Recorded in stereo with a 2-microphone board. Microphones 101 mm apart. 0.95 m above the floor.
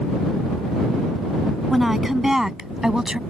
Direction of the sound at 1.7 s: Centre (ahead or behind).